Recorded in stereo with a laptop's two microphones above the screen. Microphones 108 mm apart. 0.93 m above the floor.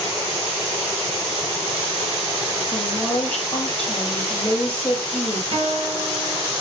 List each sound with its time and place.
2.7 s a woman speaking: 10° left (ahead or behind), 5 m
5.5 s a guitar: 55° right (ahead or behind), 5 m